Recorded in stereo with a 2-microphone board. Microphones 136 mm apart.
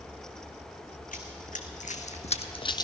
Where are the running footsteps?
75° left (ahead or behind), 1.4 m; by 2.8 s 30° left (ahead or behind), 0.6 m.